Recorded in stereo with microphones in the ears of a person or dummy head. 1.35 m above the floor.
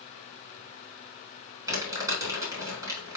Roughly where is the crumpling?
Right.